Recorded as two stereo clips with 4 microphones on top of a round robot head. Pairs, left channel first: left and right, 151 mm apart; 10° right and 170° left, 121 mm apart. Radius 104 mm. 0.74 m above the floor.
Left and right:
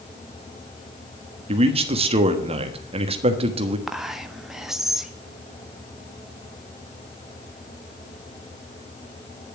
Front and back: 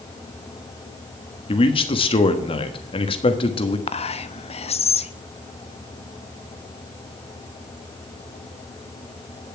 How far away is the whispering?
About 1.0 m.